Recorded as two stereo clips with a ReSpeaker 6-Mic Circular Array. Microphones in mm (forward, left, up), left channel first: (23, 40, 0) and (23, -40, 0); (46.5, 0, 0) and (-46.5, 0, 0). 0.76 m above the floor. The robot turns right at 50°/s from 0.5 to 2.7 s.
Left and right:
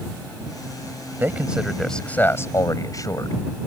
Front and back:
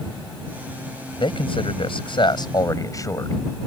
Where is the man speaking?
25° right; by 3.4 s 50° left.